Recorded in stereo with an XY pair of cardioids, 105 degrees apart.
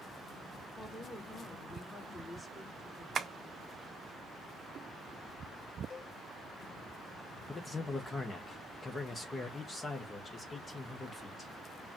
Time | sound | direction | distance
0.8 | a woman speaking | 10° left | 2.5 m
3.1 | tapping | 50° right | 0.7 m
5.9 | a cowbell | 45° left | 1.4 m
7.5 | a man speaking | 25° left | 1.1 m